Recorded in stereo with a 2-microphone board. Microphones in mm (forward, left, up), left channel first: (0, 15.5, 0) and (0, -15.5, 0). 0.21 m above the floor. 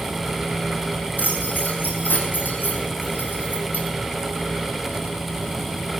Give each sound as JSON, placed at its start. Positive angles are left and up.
{"t": 1.2, "sound": "keys jangling", "side_deg": 85, "distance_m": 6.5}